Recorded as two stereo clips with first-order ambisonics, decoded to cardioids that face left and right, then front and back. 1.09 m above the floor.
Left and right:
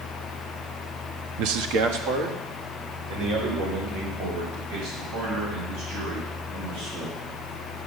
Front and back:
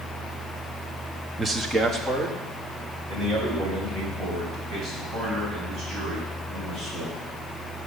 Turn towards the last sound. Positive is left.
turn(degrees=-105)